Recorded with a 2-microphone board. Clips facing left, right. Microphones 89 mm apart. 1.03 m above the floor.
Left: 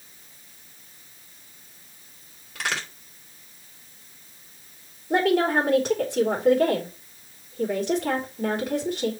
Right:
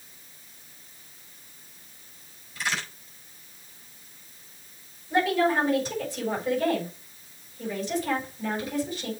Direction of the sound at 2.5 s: 75° left (ahead or behind).